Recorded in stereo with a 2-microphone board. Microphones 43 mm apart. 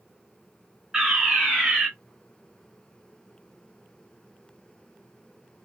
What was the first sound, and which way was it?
A fire alarm, 10° right (ahead or behind).